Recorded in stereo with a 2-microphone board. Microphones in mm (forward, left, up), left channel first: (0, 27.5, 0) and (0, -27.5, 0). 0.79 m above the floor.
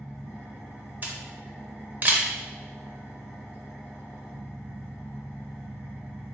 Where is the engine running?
45° right (ahead or behind), 1.9 m.